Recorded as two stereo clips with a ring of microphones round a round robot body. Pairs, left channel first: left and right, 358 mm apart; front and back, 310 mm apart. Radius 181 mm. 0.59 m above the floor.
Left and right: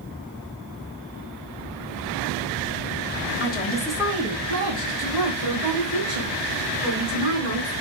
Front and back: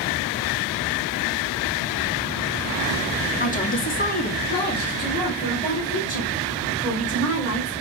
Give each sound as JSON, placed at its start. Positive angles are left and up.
{"t": 3.4, "sound": "a woman speaking", "azimuth_deg": 50, "distance_m": 1.0}